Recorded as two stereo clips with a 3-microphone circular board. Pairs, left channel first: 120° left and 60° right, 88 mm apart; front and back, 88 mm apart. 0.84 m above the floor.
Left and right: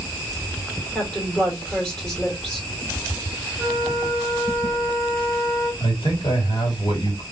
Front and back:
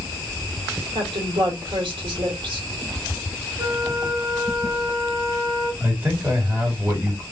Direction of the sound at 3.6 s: 155° right.